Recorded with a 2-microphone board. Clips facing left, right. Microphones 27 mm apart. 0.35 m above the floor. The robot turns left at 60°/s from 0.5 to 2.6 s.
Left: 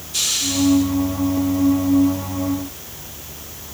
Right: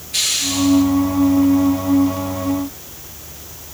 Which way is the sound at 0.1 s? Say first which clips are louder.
Right 2 dB; 80° right.